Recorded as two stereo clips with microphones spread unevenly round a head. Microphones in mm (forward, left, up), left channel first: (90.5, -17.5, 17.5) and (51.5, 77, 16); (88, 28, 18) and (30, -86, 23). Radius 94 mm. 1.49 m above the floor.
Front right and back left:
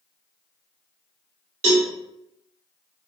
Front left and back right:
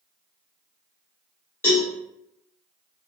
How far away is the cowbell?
About 0.8 m.